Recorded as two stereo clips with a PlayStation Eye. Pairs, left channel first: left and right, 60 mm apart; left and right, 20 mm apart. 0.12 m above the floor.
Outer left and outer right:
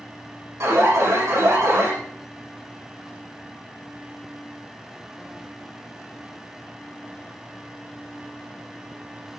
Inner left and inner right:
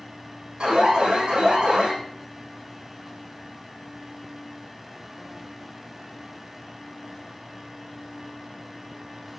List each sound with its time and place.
0.6 s an alarm: 60° right (ahead or behind), 8.5 m